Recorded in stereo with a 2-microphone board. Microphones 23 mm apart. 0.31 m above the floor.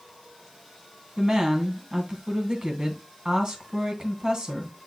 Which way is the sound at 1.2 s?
40° right (ahead or behind).